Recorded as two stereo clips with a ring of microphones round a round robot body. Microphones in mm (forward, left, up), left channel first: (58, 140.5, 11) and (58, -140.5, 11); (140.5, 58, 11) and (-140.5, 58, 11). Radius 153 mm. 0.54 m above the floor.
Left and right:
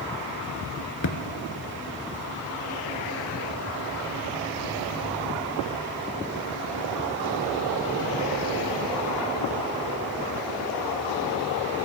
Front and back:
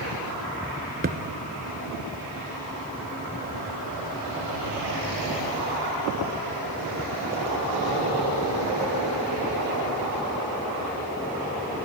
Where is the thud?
120° left, 1.0 m.